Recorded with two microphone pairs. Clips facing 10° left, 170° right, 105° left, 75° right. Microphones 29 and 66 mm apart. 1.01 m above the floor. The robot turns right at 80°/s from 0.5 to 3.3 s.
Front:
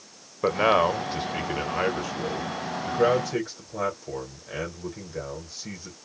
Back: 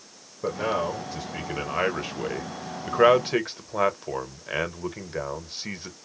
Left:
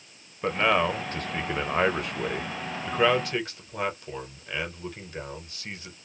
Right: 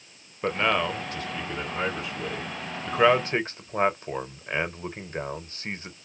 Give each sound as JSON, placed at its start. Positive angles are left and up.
{"t": 0.4, "sound": "a man speaking", "azimuth_deg": 5, "distance_m": 0.7}